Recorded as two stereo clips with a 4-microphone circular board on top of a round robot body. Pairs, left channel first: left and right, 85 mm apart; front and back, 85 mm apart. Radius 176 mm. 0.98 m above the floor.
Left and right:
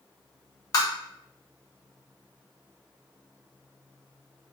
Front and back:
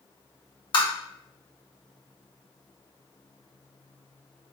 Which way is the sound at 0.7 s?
40° left.